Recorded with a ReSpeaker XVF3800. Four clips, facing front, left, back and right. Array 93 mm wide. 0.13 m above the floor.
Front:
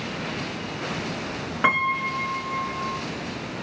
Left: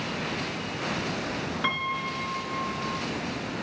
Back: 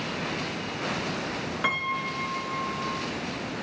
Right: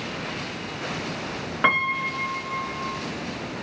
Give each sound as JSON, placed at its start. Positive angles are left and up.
{"t": 1.6, "sound": "a piano", "azimuth_deg": -55, "distance_m": 1.4}